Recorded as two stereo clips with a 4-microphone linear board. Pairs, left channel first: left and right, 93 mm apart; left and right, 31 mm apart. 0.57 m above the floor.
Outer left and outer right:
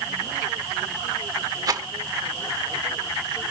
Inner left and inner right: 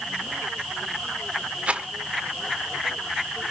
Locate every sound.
1.7 s a rattle: 45° right (ahead or behind), 1.6 m